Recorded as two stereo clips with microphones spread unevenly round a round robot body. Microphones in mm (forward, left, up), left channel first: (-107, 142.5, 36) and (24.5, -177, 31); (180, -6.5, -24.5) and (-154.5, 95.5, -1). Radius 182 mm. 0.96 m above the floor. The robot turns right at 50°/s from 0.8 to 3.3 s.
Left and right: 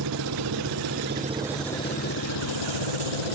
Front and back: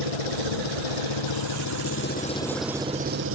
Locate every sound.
0.0 s an engine running: 15° right; by 3.4 s 110° left